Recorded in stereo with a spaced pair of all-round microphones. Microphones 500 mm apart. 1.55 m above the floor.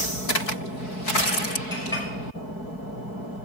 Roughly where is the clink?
Centre.